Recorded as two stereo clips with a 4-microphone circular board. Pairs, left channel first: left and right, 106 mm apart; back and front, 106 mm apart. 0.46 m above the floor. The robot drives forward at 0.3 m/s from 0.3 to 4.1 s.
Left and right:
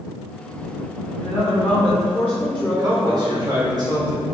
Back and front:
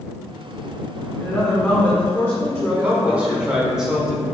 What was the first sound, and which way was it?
A woman speaking, 115° left.